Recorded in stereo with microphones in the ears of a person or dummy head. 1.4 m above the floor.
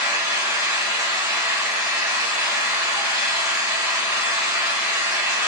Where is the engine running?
10° right (ahead or behind), 1.1 m.